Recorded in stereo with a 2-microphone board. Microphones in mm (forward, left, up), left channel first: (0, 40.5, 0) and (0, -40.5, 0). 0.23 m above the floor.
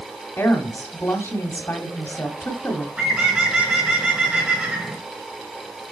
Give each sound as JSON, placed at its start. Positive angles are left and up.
{"t": 0.4, "sound": "a woman speaking", "side_deg": 30, "distance_m": 1.1}
{"t": 3.0, "sound": "a bird", "side_deg": -15, "distance_m": 1.7}